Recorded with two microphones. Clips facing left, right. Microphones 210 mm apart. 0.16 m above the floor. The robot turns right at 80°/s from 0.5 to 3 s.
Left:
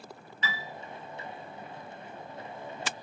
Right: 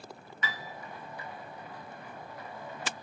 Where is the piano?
25° left (ahead or behind), 1.9 m; by 0.7 s 15° left (ahead or behind), 1.9 m.